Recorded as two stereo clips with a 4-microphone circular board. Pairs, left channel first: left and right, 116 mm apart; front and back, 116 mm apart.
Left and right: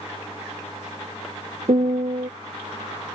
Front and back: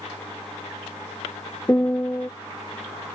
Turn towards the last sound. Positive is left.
turn(degrees=-70)